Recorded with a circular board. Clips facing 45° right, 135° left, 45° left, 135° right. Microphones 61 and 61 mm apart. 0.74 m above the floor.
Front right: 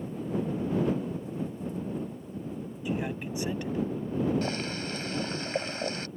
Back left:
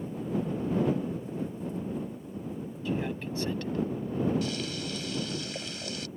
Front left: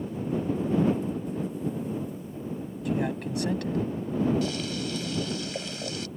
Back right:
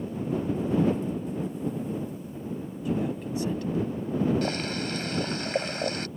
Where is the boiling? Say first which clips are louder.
Front right 1 dB, back right 1 dB; 95° right.